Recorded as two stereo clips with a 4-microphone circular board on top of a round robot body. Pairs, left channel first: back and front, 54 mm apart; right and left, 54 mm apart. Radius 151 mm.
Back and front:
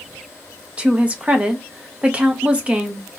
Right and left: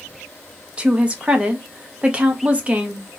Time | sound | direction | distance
0.8 | a woman speaking | 45° left | 0.8 m